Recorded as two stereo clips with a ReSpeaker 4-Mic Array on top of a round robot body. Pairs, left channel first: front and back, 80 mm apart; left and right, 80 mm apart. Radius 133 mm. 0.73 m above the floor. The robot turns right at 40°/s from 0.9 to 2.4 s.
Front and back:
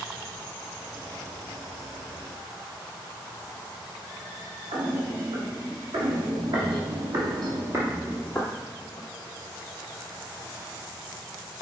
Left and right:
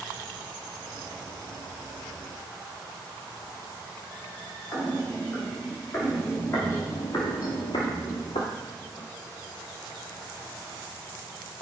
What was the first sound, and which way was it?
Footsteps, 160° left.